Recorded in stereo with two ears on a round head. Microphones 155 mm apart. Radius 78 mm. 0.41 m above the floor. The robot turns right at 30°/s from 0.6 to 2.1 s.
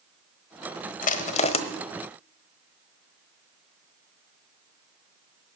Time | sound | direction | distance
1.0 | crushing | 50° left (ahead or behind) | 1.2 m